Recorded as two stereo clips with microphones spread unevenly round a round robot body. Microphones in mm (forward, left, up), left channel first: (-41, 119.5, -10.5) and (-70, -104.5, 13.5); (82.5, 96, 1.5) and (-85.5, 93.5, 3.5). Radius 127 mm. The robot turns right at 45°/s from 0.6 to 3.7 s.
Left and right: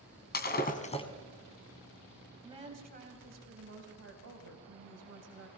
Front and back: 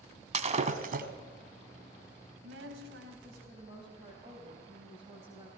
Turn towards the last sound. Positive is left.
turn(degrees=-110)